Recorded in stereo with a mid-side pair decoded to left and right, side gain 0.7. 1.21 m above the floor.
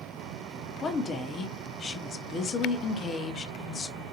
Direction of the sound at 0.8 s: 35° left.